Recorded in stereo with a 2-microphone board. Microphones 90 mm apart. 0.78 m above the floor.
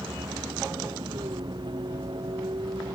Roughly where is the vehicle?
Right.